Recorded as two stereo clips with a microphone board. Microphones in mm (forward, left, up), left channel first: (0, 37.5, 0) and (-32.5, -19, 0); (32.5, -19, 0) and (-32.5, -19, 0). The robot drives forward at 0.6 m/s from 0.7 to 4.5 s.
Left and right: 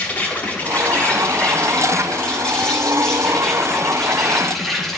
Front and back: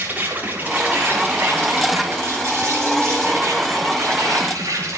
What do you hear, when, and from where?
0.0 s an insect: 120° left, 3.5 m; by 5.0 s 145° left, 5 m